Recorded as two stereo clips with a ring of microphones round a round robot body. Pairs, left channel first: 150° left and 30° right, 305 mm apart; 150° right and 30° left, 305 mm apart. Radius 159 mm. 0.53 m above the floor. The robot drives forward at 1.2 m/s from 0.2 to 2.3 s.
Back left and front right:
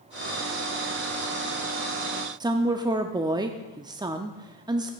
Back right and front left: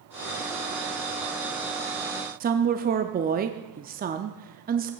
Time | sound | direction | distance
2.4 | a woman speaking | 30° left | 0.6 m